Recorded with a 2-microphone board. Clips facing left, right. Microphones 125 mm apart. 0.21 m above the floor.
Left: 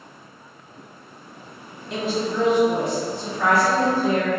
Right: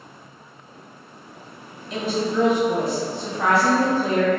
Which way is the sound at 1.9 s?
30° left (ahead or behind).